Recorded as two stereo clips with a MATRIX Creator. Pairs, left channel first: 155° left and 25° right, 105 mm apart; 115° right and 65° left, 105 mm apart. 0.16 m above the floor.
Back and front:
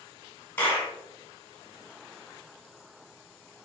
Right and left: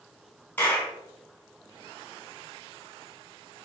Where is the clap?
160° right, 1.0 m.